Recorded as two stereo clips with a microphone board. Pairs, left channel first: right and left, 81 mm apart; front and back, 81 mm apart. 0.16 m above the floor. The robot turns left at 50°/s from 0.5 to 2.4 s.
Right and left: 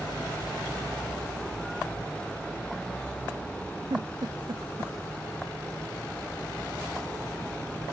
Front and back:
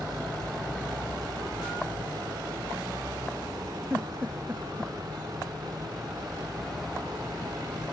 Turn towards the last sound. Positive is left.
turn(degrees=115)